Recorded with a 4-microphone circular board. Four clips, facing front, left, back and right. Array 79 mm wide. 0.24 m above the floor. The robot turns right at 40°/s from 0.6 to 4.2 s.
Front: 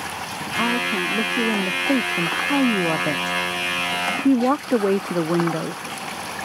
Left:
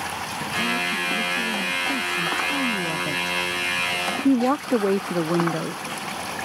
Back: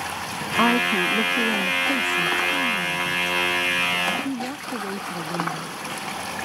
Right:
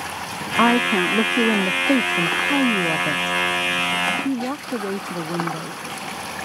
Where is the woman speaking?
115° right; by 5.8 s 30° left.